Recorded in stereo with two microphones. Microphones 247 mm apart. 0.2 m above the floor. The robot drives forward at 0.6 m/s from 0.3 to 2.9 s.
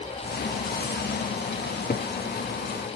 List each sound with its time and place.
1.6 s a cupboard door: 40° left (ahead or behind), 1.2 m; by 2.1 s 30° left (ahead or behind), 1.5 m